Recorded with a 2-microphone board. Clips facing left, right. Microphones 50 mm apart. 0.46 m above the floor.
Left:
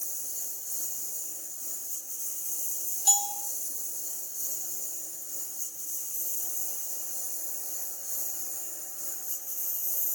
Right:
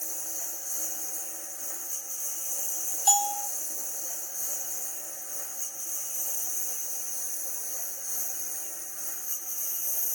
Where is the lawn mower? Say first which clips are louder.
Right 5 dB; 70° right (ahead or behind).